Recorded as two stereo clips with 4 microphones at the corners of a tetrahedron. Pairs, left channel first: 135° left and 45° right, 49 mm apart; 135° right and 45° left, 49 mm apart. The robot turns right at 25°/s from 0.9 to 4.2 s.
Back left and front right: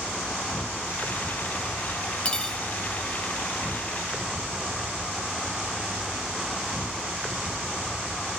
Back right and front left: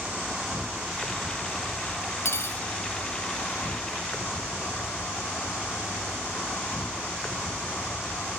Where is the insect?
125° left, 0.7 m; by 8.4 s 155° right, 0.7 m.